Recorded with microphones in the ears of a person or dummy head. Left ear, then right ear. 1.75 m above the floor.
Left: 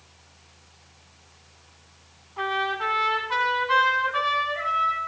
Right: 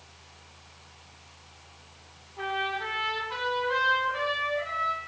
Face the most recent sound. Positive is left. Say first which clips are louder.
# left 4 dB
turn(degrees=50)  # may be behind; listen again after turning